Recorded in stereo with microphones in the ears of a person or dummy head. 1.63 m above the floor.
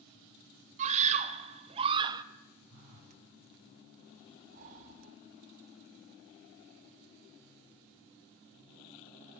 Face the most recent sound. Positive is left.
turn(degrees=-45)  # may be behind; listen again after turning